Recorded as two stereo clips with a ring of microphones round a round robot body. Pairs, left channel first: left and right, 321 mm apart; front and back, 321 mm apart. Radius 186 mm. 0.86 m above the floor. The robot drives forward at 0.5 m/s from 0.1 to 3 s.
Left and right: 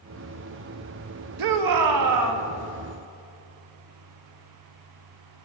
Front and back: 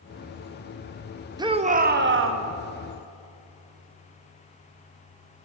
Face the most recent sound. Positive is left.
turn(degrees=-140)